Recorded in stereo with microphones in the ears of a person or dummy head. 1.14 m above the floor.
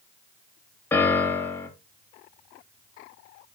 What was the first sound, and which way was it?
A piano, 10° left (ahead or behind).